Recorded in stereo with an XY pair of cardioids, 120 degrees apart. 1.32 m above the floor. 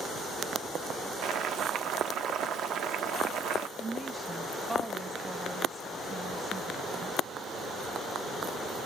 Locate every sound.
1.2 s boiling: 70° right, 0.6 m
3.8 s a woman speaking: 15° right, 0.6 m